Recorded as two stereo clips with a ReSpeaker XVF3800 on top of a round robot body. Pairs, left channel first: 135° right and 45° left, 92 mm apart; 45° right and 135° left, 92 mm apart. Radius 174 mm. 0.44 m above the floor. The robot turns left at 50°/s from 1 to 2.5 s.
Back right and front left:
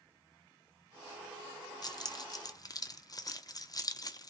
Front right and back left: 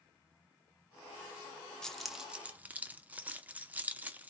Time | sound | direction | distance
1.8 | keys jangling | 125° right | 0.7 m